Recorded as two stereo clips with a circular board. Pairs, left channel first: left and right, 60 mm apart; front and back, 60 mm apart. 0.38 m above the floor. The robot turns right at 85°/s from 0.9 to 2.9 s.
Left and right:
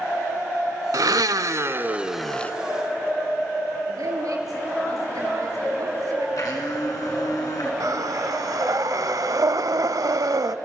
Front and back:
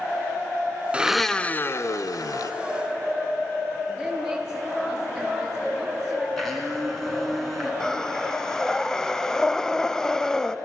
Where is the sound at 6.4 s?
90° left, 4 m.